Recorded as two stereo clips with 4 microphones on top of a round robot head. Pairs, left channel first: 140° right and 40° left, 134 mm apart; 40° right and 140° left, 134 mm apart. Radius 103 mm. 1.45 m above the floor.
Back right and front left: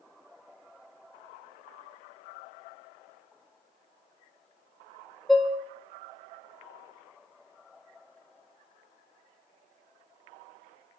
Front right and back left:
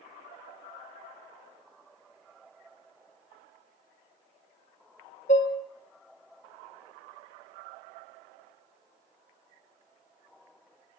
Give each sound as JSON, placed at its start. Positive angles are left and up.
{"t": 5.3, "sound": "dishes clattering", "azimuth_deg": -55, "distance_m": 0.5}